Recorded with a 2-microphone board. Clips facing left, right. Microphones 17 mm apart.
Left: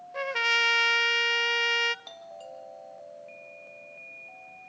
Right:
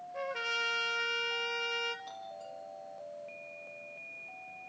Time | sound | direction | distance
0.1 | a trumpet | 40° left (ahead or behind) | 0.6 m
2.0 | a doorbell | 50° left (ahead or behind) | 4.5 m